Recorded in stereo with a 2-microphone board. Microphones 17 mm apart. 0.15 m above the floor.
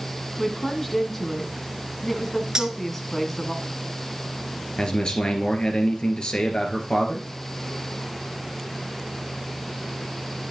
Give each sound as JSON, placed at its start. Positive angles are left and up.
{"t": 0.4, "sound": "a woman speaking", "side_deg": 15, "distance_m": 1.2}
{"t": 2.5, "sound": "cutlery clinking", "side_deg": -35, "distance_m": 1.2}
{"t": 4.8, "sound": "a man speaking", "side_deg": 60, "distance_m": 2.5}